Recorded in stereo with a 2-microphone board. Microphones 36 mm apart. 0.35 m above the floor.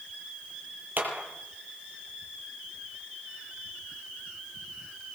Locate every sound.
1.0 s a clap: 55° right (ahead or behind), 7.5 m